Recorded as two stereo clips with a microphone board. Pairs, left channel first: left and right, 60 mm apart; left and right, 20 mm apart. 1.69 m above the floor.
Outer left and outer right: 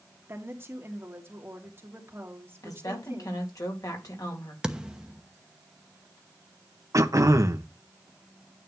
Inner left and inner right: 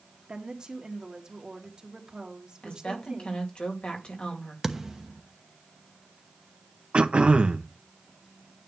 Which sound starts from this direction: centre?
A thud, at 4.6 s.